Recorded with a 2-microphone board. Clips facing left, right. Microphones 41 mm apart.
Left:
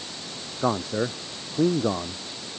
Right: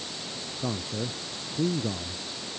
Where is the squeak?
I don't hear a squeak.